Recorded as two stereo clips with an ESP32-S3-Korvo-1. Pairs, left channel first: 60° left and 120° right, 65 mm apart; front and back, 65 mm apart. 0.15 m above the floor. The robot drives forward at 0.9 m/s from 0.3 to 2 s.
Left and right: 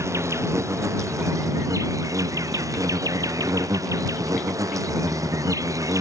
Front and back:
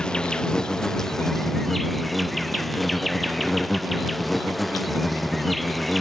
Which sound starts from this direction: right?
An insect, at 0.0 s.